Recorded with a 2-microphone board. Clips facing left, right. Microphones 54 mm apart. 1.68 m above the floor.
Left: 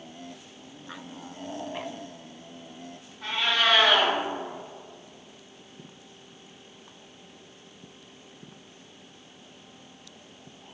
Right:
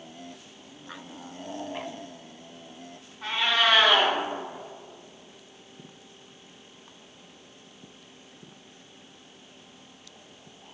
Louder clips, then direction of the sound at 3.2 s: Right 1 dB; 5° right (ahead or behind).